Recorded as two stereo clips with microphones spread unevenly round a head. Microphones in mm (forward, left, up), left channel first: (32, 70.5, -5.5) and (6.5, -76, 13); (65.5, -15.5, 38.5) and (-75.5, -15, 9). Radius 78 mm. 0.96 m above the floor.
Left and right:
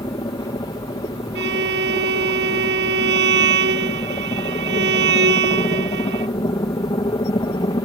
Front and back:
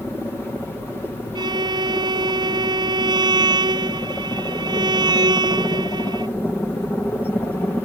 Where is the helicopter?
80° left.